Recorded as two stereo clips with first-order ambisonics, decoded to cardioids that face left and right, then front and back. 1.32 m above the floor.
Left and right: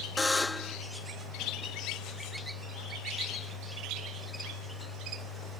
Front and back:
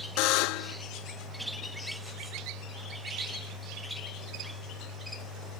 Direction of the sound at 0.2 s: 10° left.